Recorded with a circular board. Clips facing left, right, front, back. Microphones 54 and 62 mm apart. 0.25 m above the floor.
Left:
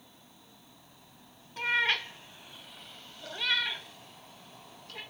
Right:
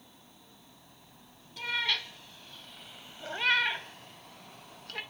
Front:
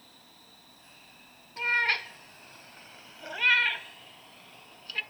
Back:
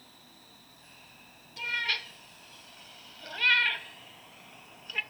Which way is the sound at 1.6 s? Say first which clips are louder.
Left 4 dB, front 5 dB; 45° left.